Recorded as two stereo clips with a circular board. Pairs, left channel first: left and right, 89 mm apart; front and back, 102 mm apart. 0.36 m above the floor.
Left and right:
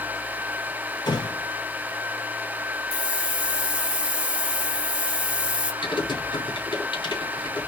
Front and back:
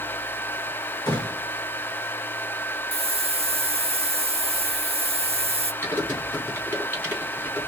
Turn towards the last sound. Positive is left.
turn(degrees=70)